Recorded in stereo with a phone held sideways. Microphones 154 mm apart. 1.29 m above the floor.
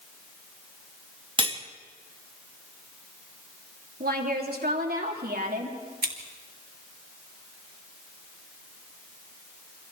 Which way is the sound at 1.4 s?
30° right (ahead or behind).